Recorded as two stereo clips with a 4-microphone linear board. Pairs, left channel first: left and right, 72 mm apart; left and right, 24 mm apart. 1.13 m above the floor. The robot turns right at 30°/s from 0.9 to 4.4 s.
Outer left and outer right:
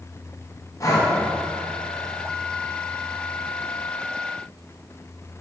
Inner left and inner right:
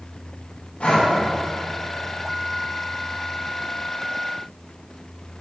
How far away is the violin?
No violin in this recording.